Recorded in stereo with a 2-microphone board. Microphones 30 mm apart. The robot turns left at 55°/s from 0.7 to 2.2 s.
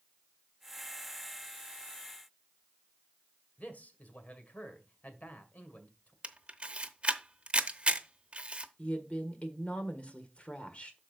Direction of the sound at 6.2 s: 40° right (ahead or behind).